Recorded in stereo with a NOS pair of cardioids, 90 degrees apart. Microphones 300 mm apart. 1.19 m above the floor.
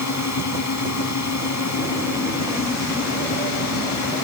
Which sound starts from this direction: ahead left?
A drone, at 0.0 s.